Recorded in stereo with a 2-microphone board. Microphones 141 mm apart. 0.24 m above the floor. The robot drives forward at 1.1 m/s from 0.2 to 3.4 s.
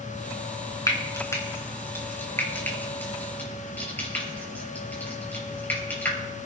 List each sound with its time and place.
0.9 s frying: 25° left (ahead or behind), 3 m; by 6.2 s 10° left (ahead or behind), 5.5 m